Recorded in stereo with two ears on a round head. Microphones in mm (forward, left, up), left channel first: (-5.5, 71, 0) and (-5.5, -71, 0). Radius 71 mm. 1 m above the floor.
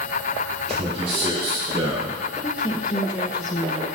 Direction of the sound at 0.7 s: 35° right (ahead or behind).